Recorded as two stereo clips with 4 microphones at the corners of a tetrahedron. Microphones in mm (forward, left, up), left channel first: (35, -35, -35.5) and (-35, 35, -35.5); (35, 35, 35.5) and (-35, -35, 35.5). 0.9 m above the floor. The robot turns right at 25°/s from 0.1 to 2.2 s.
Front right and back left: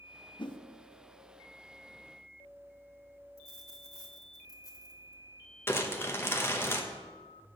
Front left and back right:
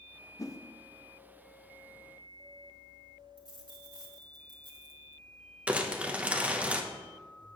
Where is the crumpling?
70° right, 0.7 m.